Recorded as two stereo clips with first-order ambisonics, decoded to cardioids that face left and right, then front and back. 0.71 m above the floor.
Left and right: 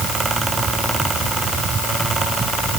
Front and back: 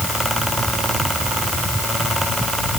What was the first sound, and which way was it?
Only background noise.